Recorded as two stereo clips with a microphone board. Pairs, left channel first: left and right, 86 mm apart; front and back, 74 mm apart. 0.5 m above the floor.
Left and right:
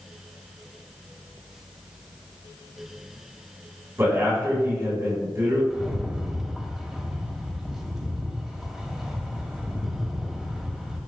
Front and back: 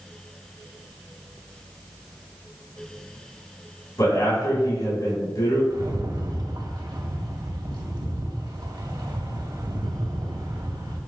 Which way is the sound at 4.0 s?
35° right.